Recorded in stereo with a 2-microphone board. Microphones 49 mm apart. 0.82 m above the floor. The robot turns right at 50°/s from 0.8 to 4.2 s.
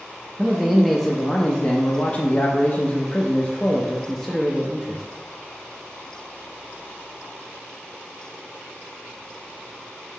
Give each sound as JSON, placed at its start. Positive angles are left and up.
{"t": 0.4, "sound": "a man speaking", "azimuth_deg": 0, "distance_m": 0.5}